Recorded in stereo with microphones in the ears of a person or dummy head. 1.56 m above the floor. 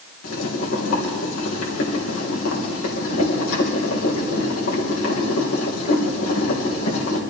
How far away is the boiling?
About 2 m.